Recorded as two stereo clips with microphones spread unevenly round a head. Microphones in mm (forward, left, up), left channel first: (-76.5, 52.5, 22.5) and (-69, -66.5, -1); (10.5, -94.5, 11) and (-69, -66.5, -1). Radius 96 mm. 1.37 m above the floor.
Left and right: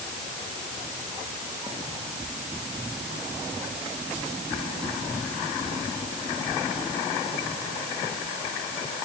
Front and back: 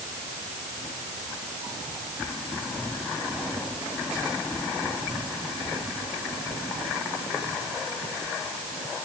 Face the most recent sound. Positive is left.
No sound to turn to.